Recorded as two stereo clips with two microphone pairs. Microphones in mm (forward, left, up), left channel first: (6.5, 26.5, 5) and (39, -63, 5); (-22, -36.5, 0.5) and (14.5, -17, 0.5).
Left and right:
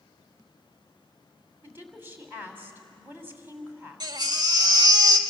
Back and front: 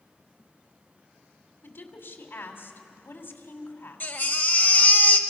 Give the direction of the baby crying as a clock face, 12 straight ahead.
4 o'clock.